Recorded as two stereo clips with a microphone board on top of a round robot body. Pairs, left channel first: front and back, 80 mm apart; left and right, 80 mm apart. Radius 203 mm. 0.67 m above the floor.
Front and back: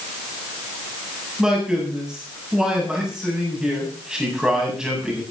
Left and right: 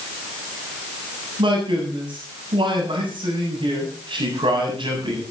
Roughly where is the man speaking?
Right.